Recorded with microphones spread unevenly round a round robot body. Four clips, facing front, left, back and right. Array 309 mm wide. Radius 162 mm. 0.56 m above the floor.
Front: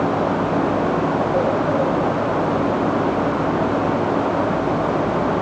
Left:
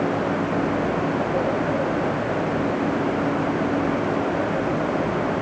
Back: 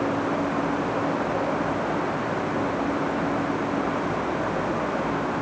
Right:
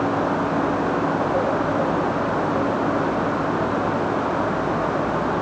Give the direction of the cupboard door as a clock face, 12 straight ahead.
No cupboard door in this recording.